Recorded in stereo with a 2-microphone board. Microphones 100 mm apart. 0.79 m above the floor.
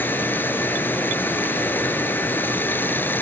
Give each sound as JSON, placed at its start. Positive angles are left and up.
{"t": 0.0, "sound": "running water", "side_deg": 20}